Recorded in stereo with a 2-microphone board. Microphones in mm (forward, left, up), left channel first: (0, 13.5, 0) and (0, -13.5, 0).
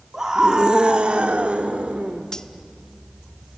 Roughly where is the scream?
Centre.